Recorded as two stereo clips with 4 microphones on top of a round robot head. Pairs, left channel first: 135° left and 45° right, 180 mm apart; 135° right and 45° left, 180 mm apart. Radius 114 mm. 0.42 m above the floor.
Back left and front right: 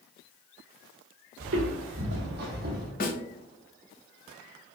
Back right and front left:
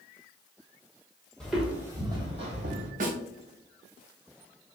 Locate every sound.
1.4 s footsteps: 50° right, 1.0 m; by 2.9 s straight ahead, 1.2 m
3.0 s a snare drum: 95° left, 0.8 m